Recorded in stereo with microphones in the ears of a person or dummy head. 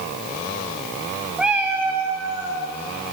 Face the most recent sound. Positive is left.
turn(degrees=-25)  # may be behind; listen again after turning